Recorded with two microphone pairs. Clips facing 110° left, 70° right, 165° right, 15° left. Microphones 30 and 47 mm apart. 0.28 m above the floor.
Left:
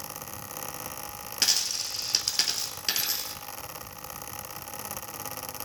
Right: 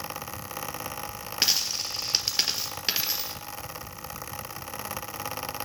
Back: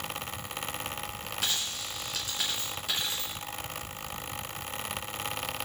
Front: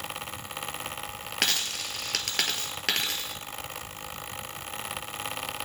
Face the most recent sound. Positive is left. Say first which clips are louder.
# right 1 dB, front 5 dB
turn(degrees=0)